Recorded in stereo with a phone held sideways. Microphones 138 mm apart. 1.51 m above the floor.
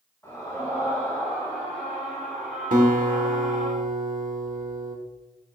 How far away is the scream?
About 4 m.